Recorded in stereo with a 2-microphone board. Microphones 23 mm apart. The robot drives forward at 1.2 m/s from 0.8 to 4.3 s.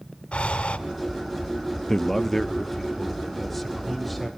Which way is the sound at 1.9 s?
20° left (ahead or behind).